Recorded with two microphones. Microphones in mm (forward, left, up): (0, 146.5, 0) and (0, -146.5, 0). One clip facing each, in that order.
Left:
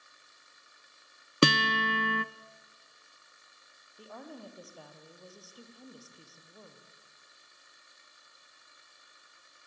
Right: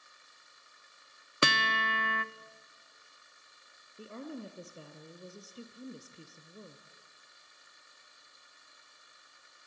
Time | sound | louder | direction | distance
1.4 | a guitar | left 9 dB | 35° left (ahead or behind) | 0.7 m
4.0 | a woman speaking | right 4 dB | 25° right (ahead or behind) | 3 m